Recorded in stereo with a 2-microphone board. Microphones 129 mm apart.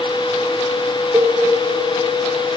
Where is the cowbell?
25° right (ahead or behind), 1.8 m.